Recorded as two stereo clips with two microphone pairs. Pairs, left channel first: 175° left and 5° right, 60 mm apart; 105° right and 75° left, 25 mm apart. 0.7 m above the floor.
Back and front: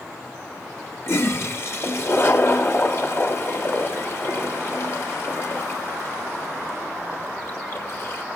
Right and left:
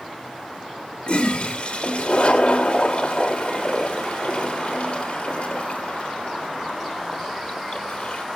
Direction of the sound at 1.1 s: 145° right.